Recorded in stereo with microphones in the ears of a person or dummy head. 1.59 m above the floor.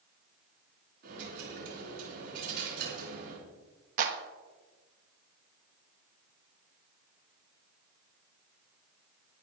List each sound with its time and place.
1.0 s a dropped coin: 60° right (ahead or behind), 4 m
4.0 s a clap: 50° right (ahead or behind), 1.4 m